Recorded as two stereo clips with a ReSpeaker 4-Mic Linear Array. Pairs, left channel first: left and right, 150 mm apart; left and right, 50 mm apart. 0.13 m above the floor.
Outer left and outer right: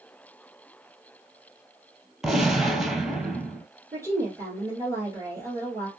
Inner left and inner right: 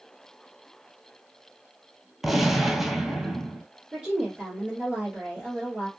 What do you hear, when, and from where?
2.2 s a gunshot: 5° right (ahead or behind), 0.6 m
3.9 s a woman speaking: 20° right (ahead or behind), 2.5 m